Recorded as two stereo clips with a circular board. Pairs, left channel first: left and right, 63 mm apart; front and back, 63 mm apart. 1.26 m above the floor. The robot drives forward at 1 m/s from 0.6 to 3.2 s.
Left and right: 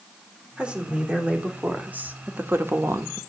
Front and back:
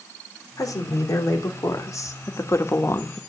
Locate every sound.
0.6 s a woman speaking: 15° right, 3.5 m; by 3.2 s 55° right, 1.2 m